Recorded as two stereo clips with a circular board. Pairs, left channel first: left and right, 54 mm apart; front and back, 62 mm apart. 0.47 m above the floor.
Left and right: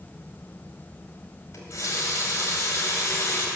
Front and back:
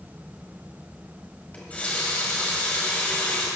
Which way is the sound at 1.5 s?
65° left.